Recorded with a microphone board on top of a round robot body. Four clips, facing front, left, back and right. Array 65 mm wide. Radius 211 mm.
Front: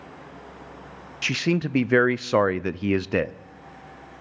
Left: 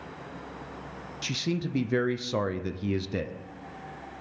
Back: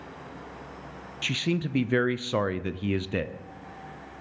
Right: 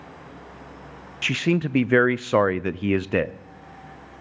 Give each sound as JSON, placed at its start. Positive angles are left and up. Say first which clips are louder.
{"t": 1.2, "sound": "a man speaking", "louder": "right 9 dB, front 5 dB", "azimuth_deg": -55, "distance_m": 0.5}